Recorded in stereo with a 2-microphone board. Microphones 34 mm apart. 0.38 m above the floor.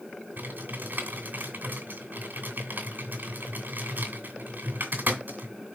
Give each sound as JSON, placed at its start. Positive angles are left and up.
{"t": 0.4, "sound": "typing on a keyboard", "side_deg": -65, "distance_m": 2.5}